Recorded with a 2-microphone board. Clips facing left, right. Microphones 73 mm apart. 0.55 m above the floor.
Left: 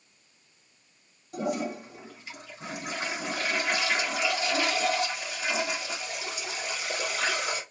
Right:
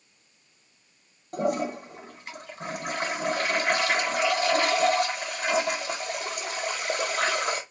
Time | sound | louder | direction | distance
1.3 | a toilet flushing | right 4 dB | 55° right (ahead or behind) | 0.9 m